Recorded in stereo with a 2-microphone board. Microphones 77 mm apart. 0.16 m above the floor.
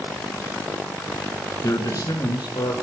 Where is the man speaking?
45° left (ahead or behind), 1.4 m; by 2.7 s 65° left (ahead or behind), 2.5 m.